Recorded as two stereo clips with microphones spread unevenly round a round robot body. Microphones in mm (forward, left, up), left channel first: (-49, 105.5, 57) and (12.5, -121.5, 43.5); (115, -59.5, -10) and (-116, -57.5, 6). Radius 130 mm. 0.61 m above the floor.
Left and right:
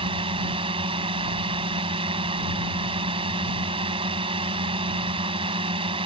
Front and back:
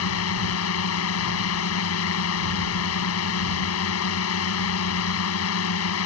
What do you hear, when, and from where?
0.0 s a drone: 5° right